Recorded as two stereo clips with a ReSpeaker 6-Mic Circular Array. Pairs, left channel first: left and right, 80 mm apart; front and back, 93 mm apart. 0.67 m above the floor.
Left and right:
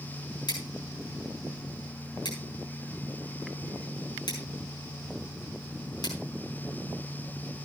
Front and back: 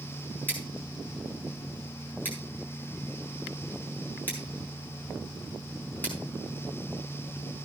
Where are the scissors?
70° left, 5.5 m.